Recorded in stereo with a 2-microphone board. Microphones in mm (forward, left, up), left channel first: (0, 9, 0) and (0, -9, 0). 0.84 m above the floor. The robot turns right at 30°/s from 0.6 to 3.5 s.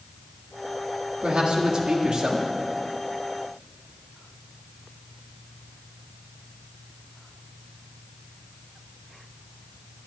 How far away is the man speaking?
About 1.9 m.